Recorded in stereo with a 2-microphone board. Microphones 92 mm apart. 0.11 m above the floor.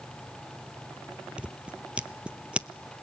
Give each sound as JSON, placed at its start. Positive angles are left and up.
{"t": 1.4, "sound": "scissors", "side_deg": -10, "distance_m": 0.6}